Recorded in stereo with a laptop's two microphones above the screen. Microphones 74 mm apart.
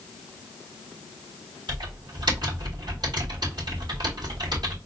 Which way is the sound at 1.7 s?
75° right (ahead or behind).